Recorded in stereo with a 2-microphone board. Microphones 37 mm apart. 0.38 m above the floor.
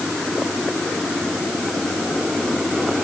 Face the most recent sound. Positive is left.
No sound to turn to.